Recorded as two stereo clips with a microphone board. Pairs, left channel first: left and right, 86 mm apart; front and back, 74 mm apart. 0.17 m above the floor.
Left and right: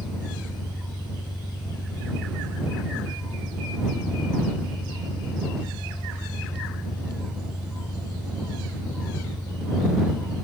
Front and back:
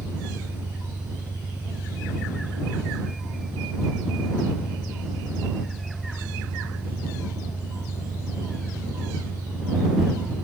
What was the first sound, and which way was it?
An engine running, 120° left.